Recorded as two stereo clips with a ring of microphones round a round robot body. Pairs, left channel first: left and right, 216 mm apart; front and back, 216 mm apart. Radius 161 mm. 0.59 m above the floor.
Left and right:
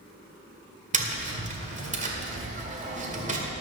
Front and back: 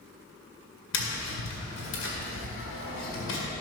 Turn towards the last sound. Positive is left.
turn(degrees=-35)